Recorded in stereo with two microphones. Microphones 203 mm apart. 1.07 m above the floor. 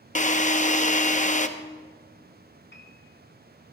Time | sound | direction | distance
0.1 | a drill | 35° left (ahead or behind) | 0.7 m
2.7 | a piano | 60° left (ahead or behind) | 2.0 m